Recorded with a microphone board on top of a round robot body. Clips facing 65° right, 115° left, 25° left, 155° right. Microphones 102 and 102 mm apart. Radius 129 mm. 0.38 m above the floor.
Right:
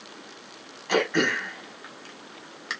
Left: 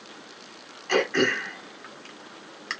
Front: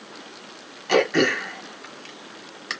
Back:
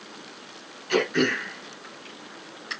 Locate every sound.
0.9 s throat clearing: 10° left, 1.9 m